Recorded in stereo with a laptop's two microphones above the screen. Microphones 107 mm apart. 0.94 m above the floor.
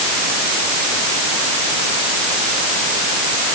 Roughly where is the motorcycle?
No motorcycle in this recording.